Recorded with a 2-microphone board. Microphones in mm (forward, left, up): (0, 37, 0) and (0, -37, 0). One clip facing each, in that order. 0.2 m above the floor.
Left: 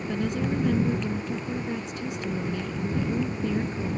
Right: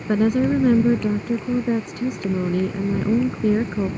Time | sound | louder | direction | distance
0.1 | a woman speaking | right 11 dB | 50° right (ahead or behind) | ?